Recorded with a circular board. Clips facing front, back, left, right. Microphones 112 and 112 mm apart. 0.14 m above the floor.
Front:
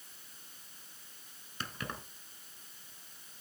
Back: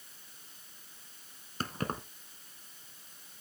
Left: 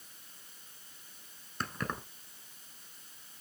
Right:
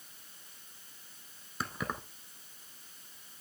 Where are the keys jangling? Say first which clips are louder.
Back 6 dB, even; 170° right, 1.2 m.